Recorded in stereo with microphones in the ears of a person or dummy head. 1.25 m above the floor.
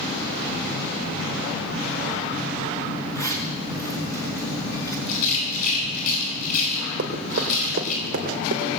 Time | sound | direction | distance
3.1 | a zipper | 15° left (ahead or behind) | 4 m
5.1 | a rattle | 85° left | 7.5 m
7.0 | running footsteps | 50° right (ahead or behind) | 2.5 m